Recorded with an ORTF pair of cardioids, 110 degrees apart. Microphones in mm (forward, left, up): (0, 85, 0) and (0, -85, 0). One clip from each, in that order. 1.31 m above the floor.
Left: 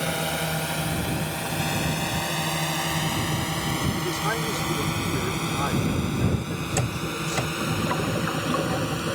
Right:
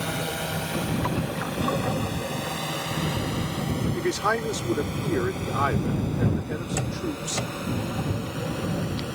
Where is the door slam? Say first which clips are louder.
Left 4 dB; 25° left.